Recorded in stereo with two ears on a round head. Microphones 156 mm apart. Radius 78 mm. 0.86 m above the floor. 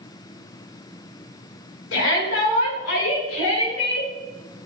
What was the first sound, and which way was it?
A shout, 75° left (ahead or behind).